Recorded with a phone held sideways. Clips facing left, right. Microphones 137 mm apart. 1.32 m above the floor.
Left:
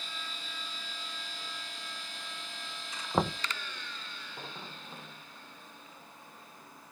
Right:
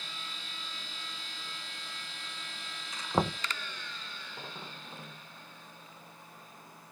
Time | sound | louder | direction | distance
3.1 | knocking | even | centre (ahead or behind) | ?